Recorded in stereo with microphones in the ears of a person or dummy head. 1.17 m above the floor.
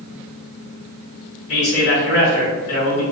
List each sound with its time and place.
1.5 s a man speaking: 55° left (ahead or behind), 1.3 m